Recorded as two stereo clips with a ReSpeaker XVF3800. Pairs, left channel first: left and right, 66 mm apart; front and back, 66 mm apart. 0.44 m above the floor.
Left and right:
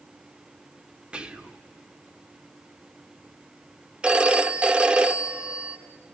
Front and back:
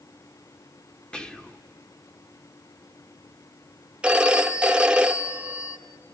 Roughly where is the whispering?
Ahead right.